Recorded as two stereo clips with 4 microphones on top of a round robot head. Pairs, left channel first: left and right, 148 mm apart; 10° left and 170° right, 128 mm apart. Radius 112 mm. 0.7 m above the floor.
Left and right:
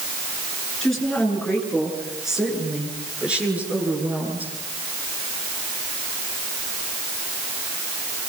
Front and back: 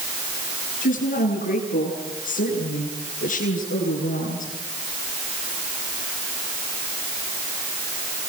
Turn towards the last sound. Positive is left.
turn(degrees=-10)